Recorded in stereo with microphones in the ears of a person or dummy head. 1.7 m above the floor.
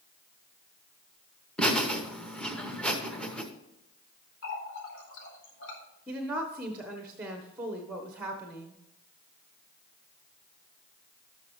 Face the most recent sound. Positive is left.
turn(degrees=-15)  # may be behind; listen again after turning